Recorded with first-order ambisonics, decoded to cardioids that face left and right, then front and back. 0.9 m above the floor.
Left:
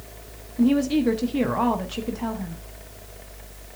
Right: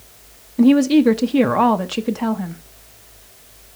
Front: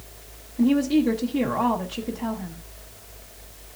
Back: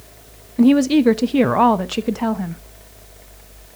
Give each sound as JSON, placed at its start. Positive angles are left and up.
{"t": 0.6, "sound": "a woman speaking", "azimuth_deg": -155, "distance_m": 0.6}